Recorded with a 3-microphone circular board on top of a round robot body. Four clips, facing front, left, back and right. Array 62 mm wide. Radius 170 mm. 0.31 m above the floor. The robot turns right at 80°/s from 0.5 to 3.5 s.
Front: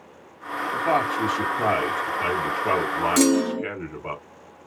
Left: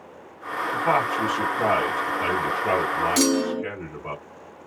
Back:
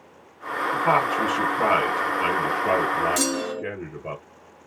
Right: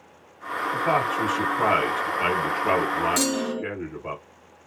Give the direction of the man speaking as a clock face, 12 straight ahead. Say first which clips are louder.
Left 1 dB, back 1 dB; 8 o'clock.